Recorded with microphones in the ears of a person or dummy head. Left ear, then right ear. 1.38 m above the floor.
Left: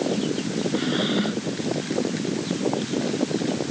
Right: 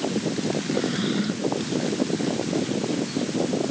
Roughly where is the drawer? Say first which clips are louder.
Left 2 dB; centre.